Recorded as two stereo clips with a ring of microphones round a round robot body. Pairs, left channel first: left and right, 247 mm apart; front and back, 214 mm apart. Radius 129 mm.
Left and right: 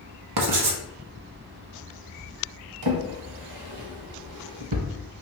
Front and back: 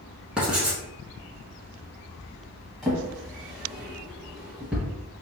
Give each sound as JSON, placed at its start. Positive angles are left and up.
{"t": 0.4, "sound": "writing", "azimuth_deg": -95, "distance_m": 0.7}
{"t": 2.8, "sound": "a drawer", "azimuth_deg": -90, "distance_m": 0.6}